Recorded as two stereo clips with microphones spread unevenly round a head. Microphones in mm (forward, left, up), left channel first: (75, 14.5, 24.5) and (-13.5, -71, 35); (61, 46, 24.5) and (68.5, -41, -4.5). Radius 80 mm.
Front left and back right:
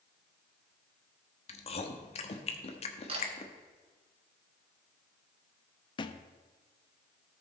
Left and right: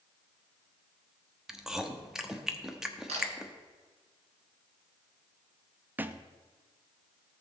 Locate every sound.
1.5 s chewing: 5° left, 1.3 m
3.1 s a camera shutter: 100° right, 3 m
6.0 s a thud: 5° right, 0.7 m